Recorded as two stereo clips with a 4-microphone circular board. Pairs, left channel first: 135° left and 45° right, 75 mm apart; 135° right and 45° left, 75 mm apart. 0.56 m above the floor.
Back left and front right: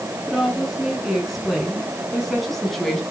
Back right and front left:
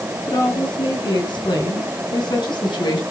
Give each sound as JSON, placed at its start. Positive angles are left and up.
{"t": 0.3, "sound": "a woman speaking", "azimuth_deg": -130, "distance_m": 8.0}